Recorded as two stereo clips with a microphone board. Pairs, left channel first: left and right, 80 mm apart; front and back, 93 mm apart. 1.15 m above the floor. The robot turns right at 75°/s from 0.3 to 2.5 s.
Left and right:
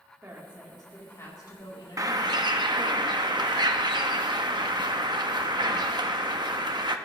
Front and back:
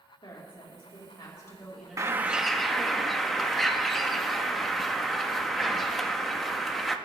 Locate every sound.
0.2 s a woman speaking: 30° right, 3 m; by 2.3 s 120° left, 3 m
2.0 s a bird: 130° right, 0.8 m; by 7.0 s 90° right, 0.8 m